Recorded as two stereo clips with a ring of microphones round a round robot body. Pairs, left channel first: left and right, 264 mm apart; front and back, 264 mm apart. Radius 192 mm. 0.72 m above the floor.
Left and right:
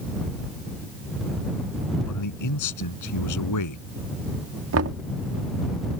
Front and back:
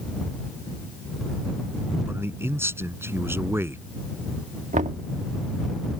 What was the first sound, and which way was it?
A man speaking, 100° left.